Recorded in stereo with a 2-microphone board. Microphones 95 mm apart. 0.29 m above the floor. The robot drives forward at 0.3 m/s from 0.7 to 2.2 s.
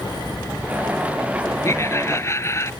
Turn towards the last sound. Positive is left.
turn(degrees=30)  # may be behind; listen again after turning